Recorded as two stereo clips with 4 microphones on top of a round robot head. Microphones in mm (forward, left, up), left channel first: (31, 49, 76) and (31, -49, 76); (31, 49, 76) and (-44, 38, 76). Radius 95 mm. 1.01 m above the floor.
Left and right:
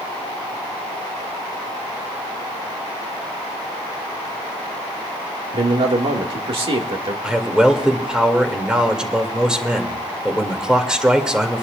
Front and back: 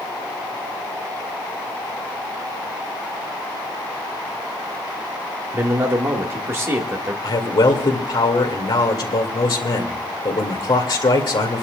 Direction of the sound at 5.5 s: 120° right.